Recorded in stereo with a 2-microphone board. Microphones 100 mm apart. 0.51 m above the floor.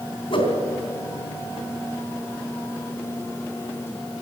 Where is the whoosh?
60° left (ahead or behind), 3 m.